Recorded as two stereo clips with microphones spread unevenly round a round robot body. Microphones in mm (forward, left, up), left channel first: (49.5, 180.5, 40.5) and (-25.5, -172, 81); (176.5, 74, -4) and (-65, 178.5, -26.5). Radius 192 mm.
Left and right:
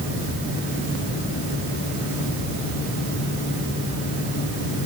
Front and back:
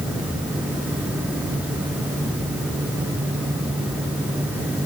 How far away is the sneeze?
No sneeze in this recording.